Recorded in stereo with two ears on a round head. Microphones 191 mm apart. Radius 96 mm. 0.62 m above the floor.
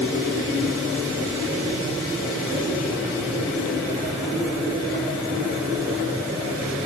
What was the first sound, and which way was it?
Only background noise.